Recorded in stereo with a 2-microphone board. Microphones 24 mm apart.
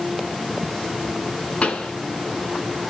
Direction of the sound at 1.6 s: 50° left (ahead or behind).